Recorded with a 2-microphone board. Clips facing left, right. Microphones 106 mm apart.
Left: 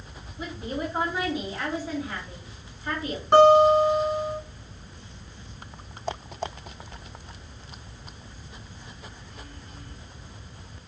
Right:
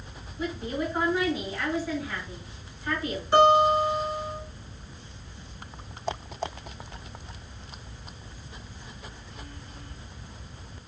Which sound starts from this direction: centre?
A woman speaking, at 0.4 s.